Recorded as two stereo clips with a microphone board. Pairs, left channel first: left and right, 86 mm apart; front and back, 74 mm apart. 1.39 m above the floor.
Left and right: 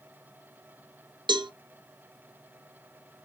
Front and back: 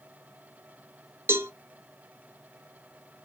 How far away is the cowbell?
About 0.5 m.